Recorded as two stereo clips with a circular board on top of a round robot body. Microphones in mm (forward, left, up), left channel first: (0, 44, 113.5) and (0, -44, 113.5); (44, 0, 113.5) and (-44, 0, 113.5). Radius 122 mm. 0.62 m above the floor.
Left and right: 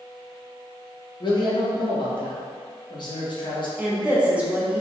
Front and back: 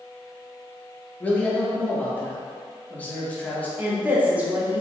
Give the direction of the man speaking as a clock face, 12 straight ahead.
10 o'clock.